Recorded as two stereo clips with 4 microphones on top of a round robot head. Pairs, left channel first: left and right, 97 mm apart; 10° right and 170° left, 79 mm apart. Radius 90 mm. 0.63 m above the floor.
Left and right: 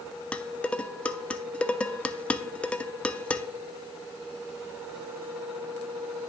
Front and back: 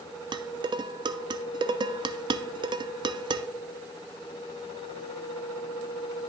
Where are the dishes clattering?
170° left, 0.5 m.